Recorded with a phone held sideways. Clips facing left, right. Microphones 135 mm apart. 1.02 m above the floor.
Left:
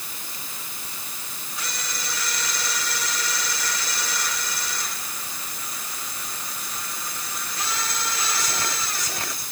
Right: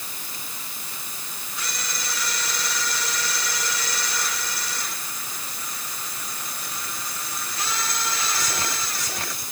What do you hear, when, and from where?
Only background noise.